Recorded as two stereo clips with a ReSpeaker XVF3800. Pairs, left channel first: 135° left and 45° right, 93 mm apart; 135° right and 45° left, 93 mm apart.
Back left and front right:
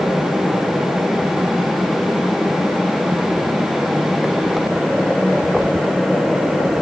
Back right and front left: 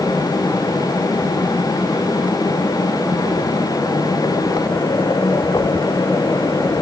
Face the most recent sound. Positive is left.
No sound to turn to.